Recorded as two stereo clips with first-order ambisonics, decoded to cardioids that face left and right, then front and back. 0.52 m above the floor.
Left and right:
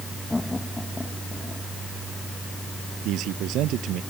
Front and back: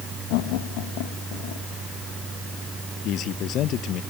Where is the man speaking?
50° right.